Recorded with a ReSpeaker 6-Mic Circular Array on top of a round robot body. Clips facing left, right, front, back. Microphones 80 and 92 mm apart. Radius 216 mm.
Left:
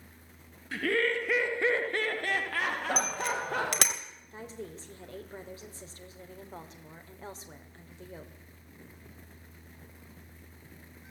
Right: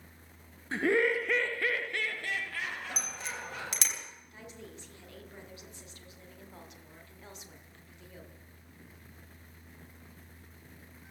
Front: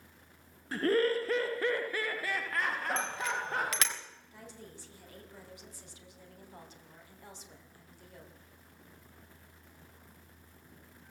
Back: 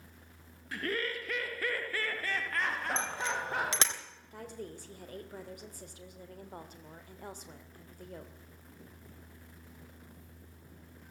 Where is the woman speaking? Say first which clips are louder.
Left 7 dB, back 8 dB; 140° left, 3 m.